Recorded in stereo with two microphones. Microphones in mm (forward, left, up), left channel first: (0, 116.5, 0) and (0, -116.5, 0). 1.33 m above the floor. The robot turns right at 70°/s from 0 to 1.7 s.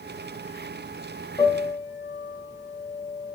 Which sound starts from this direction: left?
A piano, at 1.4 s.